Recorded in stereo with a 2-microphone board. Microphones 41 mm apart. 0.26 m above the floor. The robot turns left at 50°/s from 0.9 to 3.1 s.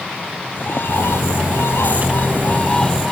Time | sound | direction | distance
0.6 | a bird | 120° left | ?